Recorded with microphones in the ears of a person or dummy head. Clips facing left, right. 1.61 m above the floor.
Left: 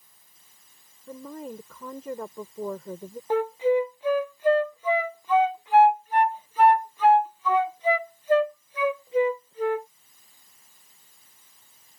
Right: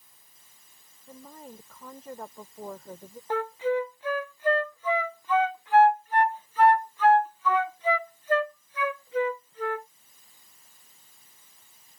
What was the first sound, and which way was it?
A woman speaking, 60° left (ahead or behind).